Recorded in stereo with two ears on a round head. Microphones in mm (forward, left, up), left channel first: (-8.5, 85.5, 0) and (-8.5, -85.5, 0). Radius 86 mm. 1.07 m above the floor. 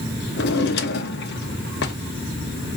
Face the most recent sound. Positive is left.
turn(degrees=55)  # may be behind; listen again after turning